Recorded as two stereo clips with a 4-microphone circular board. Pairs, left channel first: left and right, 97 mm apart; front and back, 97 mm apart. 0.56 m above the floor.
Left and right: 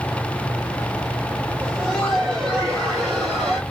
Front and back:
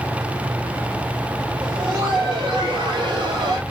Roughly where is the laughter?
Behind.